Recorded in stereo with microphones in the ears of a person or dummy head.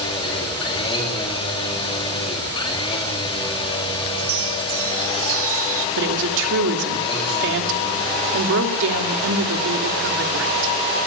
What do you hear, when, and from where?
0.0 s a machine running: 30° left (ahead or behind), 3 m
4.2 s a chime: 65° right (ahead or behind), 1.0 m
6.0 s a woman speaking: 65° right (ahead or behind), 3 m